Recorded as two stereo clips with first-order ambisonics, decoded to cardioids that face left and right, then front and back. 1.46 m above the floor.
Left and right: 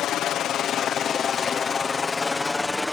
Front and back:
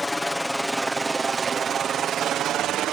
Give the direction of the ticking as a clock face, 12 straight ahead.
I don't hear ticking.